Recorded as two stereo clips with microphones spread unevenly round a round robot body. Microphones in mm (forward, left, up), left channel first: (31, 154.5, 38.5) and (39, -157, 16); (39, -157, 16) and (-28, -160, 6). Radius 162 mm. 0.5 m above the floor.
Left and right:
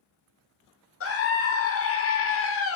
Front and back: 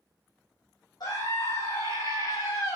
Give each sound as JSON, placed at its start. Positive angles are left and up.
{"t": 1.0, "sound": "a scream", "azimuth_deg": 45, "distance_m": 1.8}